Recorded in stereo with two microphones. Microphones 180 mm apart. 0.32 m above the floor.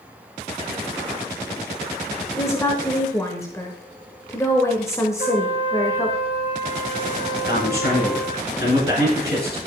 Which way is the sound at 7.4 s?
65° left (ahead or behind).